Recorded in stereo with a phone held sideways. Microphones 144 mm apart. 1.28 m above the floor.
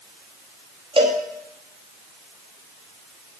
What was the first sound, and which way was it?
A cowbell, 40° right (ahead or behind).